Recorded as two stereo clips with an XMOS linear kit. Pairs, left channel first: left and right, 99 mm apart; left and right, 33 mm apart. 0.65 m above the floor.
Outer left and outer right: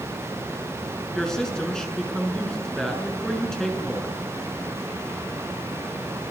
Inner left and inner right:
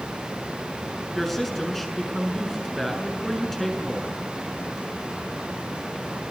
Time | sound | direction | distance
1.1 | a woman speaking | 5° left (ahead or behind) | 6 m